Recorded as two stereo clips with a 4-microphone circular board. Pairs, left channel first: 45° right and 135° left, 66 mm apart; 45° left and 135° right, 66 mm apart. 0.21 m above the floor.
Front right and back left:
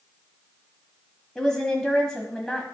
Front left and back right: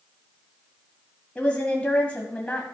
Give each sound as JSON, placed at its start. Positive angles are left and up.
{"t": 1.4, "sound": "a woman speaking", "azimuth_deg": 20, "distance_m": 1.2}